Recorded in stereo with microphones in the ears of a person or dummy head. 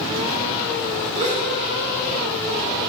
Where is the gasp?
30° right (ahead or behind), 3 m.